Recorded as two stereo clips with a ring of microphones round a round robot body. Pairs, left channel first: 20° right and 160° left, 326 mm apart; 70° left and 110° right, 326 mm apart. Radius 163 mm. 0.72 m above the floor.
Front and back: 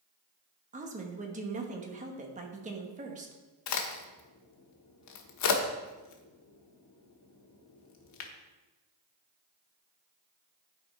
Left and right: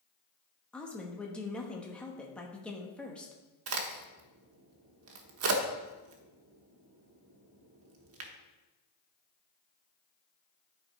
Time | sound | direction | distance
0.7 | a woman speaking | 150° left | 1.1 m
3.7 | a crack | 65° right | 1.1 m